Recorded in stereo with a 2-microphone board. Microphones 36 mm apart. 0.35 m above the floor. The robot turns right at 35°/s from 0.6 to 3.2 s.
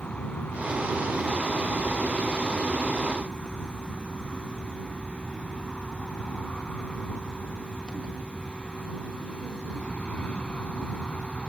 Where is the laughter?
I don't hear laughter.